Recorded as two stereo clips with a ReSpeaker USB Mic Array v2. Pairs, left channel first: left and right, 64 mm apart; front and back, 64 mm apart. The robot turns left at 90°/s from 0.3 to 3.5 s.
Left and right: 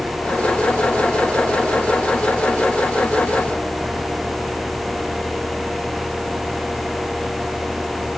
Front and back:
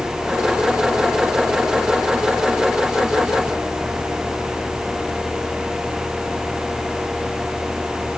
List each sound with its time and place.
Only background noise.